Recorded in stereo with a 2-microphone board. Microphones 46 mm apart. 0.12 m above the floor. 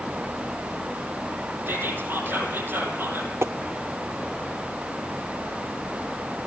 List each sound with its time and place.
1.7 s whispering: 45° right (ahead or behind), 4 m
3.4 s tapping: 70° right (ahead or behind), 0.6 m